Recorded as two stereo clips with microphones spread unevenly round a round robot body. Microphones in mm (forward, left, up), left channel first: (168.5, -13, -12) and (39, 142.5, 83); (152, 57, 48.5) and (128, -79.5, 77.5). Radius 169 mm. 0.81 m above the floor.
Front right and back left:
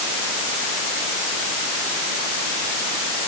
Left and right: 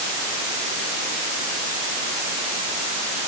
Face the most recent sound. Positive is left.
No sound to turn to.